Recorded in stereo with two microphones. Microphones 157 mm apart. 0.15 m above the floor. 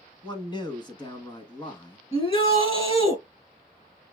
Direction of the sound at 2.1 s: 35° left (ahead or behind).